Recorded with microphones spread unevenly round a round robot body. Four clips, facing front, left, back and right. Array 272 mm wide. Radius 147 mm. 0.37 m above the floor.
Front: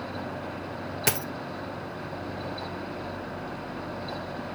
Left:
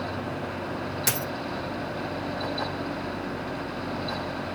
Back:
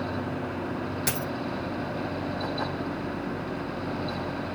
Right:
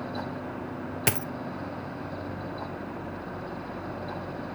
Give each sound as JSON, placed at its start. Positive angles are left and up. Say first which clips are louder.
{"t": 1.1, "sound": "a dropped coin", "louder": "right 3 dB, front 1 dB", "azimuth_deg": -35, "distance_m": 1.1}